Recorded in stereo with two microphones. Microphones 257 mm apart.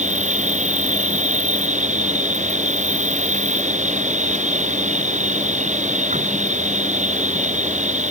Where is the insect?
25° right (ahead or behind).